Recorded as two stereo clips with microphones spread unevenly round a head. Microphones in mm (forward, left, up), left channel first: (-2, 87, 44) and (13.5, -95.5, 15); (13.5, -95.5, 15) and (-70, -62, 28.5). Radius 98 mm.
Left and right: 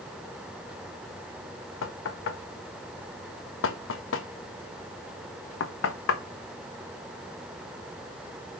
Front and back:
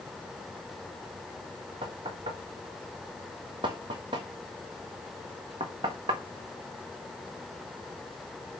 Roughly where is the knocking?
Left.